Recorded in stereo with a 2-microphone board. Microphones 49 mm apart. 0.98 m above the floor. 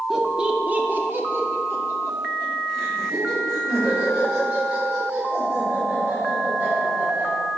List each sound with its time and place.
0.1 s laughter: 5° right (ahead or behind), 0.7 m; by 7.3 s 55° right (ahead or behind), 4.5 m